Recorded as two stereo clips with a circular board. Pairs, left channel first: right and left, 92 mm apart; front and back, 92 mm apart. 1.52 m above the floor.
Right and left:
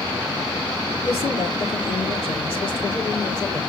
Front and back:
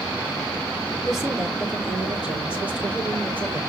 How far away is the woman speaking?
About 4 m.